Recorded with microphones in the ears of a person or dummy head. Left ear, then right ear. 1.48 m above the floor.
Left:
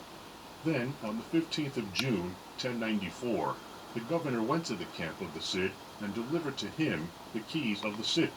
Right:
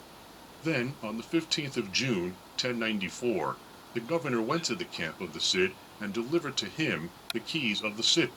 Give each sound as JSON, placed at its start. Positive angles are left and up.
{"t": 0.6, "sound": "a man speaking", "side_deg": -60, "distance_m": 1.2}